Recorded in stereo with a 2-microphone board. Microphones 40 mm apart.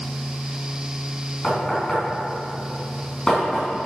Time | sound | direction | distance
1.4 | knocking | 15° left (ahead or behind) | 3.5 m